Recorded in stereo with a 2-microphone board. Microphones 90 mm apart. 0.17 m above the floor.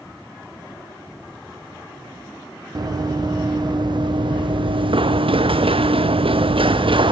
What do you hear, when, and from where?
2.8 s running footsteps: 45° right (ahead or behind), 2.5 m; by 7.1 s 65° right (ahead or behind), 1.6 m